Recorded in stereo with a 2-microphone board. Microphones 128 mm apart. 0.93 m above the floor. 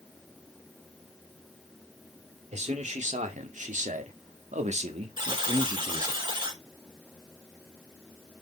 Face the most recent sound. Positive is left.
turn(degrees=-40)  # may be behind; listen again after turning